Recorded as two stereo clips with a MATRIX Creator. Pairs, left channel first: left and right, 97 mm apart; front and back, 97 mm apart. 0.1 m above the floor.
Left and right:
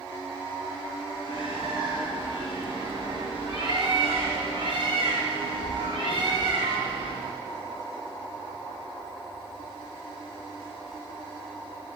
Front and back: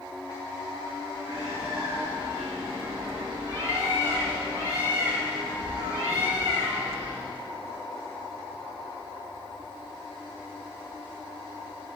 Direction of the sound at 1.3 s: 125° right.